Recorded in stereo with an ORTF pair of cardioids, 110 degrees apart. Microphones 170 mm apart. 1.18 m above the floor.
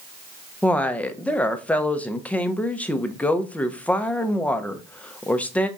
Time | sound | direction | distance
0.6 | a woman speaking | 10° left | 0.7 m